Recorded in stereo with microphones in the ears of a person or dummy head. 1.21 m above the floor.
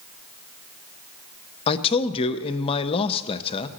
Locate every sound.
1.7 s a man speaking: 25° left (ahead or behind), 0.5 m